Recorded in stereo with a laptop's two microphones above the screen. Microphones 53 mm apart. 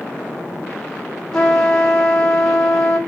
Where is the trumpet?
10° left (ahead or behind), 2.0 m.